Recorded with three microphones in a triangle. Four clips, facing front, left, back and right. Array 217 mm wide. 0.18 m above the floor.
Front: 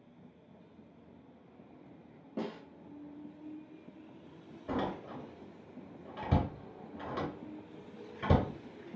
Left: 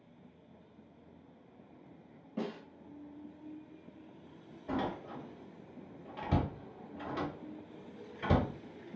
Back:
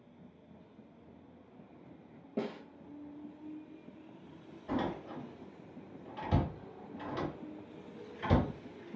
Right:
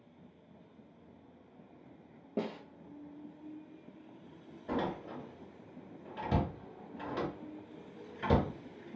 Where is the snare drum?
100° right, 0.9 m.